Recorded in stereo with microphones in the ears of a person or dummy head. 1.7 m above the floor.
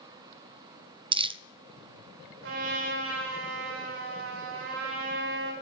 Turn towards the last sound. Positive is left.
turn(degrees=-75)  # may be behind; listen again after turning